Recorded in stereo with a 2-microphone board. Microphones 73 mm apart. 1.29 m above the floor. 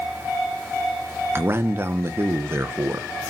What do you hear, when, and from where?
1.4 s a man speaking: 30° right (ahead or behind), 1.1 m